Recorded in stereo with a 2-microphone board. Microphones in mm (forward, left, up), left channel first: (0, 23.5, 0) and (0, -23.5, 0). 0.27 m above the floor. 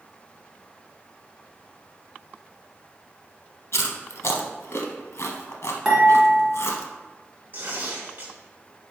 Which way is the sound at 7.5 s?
40° right (ahead or behind).